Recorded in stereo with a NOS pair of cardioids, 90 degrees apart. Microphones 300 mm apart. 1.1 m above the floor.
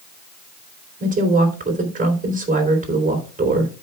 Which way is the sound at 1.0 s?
25° right.